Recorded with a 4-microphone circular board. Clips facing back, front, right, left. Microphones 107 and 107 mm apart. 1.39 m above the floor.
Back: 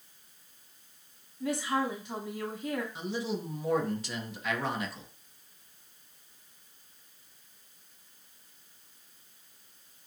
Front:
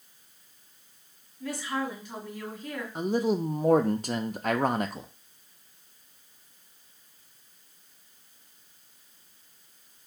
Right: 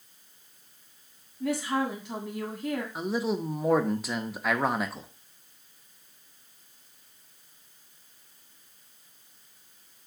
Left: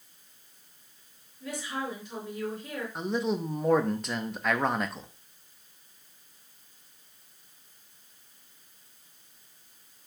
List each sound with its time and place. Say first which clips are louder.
1.4 s a woman speaking: back 2 dB, right 7 dB; 115° right, 1.8 m
3.0 s a man speaking: front 8 dB, left 3 dB; 5° right, 0.6 m